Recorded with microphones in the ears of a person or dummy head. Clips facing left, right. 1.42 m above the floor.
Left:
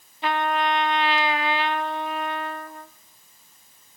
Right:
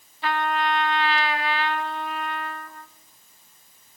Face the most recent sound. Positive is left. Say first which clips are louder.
# left 1 dB
turn(degrees=20)  # may be behind; listen again after turning